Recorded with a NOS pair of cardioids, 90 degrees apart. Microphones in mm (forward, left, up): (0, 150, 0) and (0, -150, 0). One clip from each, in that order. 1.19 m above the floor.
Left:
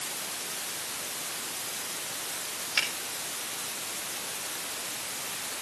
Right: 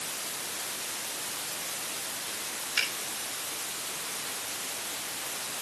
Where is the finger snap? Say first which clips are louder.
Left 1 dB; 20° left, 6.5 m.